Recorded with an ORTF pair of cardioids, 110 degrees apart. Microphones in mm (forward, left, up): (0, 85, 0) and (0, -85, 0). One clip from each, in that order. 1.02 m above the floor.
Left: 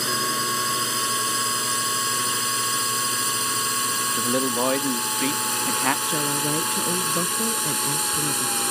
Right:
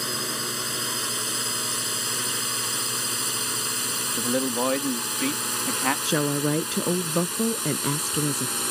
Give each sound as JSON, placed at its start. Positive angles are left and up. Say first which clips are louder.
{"t": 0.0, "sound": "a drone", "louder": "left 5 dB", "azimuth_deg": 55}
{"t": 4.2, "sound": "a man speaking", "louder": "even", "azimuth_deg": 40}
{"t": 6.0, "sound": "a woman speaking", "louder": "even", "azimuth_deg": -10}